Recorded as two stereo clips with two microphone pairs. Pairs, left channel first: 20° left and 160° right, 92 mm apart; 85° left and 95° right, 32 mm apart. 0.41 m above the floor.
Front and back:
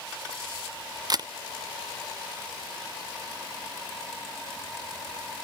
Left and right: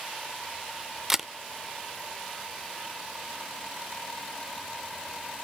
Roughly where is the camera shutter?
Behind.